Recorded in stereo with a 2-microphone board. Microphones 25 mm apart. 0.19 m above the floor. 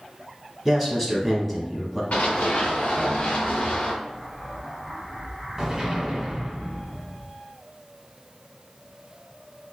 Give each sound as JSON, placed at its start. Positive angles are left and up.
{"t": 0.7, "sound": "a man speaking", "side_deg": 10, "distance_m": 1.0}
{"t": 2.1, "sound": "running footsteps", "side_deg": 70, "distance_m": 1.2}
{"t": 4.0, "sound": "an explosion", "side_deg": -20, "distance_m": 1.3}